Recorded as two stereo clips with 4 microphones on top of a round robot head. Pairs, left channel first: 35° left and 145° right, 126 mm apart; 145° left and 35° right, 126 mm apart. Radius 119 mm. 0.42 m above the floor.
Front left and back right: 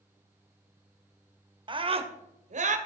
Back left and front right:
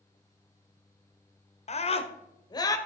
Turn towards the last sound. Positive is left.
turn(degrees=-155)